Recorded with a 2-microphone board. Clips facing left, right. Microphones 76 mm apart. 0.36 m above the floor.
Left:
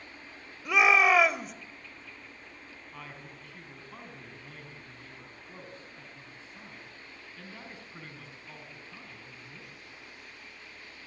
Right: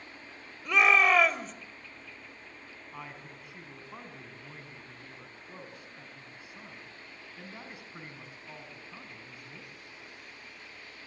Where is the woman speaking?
10° right (ahead or behind), 3 m.